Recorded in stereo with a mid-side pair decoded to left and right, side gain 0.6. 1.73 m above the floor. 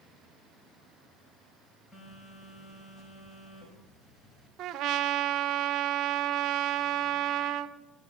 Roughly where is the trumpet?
Ahead right.